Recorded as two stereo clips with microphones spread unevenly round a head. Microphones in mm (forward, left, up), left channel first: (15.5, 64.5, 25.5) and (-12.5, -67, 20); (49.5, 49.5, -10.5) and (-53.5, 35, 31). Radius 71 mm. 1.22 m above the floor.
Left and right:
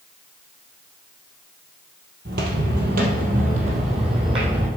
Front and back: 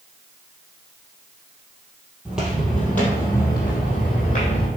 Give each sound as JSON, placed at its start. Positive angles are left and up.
{"t": 2.2, "sound": "footsteps", "azimuth_deg": -105, "distance_m": 2.5}